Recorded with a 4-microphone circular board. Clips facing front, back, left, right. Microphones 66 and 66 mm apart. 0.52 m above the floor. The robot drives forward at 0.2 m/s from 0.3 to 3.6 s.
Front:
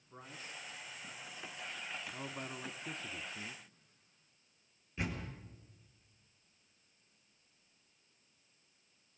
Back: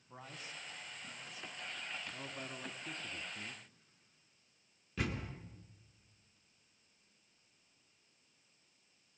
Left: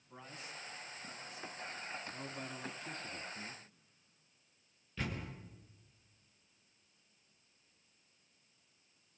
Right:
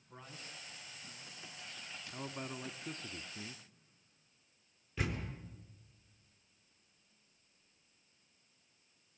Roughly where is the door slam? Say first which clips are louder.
Back 1 dB, right 2 dB; behind.